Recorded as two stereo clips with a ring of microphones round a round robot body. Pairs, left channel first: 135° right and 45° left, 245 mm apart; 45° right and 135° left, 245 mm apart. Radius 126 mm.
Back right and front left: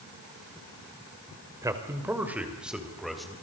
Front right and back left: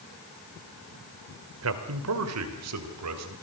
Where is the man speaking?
120° left, 2.5 m; by 3.4 s 135° left, 3.5 m.